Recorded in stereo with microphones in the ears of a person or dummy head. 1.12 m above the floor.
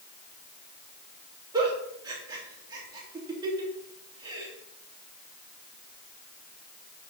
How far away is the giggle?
About 2.5 m.